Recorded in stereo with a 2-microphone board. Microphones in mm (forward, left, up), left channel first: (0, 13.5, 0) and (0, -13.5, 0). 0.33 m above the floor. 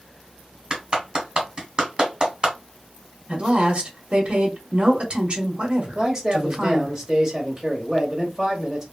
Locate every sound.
0.7 s a clap: 35° right (ahead or behind), 1.4 m
3.3 s a woman speaking: 40° right (ahead or behind), 1.1 m
6.0 s a man speaking: 15° right (ahead or behind), 1.3 m